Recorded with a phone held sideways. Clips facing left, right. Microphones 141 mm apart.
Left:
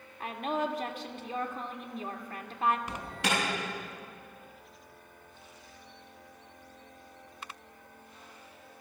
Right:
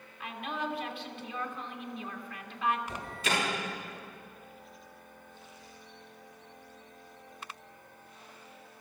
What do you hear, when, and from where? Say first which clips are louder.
0.2 s a woman speaking: left 5 dB; 40° left (ahead or behind), 2 m
2.9 s an alarm: left 1 dB; 75° left (ahead or behind), 9.5 m